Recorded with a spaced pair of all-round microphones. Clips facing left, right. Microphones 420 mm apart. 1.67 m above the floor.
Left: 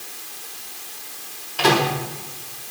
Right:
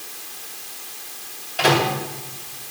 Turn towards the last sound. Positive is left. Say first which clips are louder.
# even
turn(degrees=10)  # may be behind; listen again after turning